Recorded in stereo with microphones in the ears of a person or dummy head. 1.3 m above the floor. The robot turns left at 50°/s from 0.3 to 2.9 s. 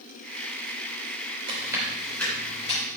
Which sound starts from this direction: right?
Chewing, at 1.5 s.